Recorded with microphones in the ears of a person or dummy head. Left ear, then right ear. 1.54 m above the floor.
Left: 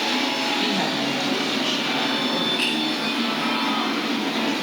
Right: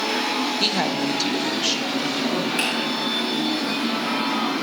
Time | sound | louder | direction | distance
0.6 | a woman speaking | right 1 dB | 40° right (ahead or behind) | 0.8 m
2.6 | a finger snap | right 3 dB | 50° right (ahead or behind) | 3.5 m